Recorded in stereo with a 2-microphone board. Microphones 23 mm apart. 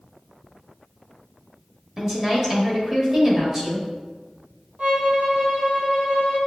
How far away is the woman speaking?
About 0.9 m.